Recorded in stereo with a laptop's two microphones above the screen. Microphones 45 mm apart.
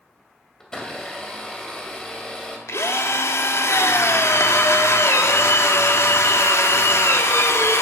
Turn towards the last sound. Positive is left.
turn(degrees=85)